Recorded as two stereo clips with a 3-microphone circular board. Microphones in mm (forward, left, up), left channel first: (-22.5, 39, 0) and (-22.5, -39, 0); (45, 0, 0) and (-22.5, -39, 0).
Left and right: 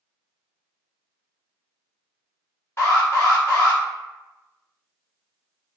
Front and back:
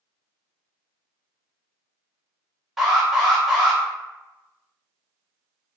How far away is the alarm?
About 1.0 m.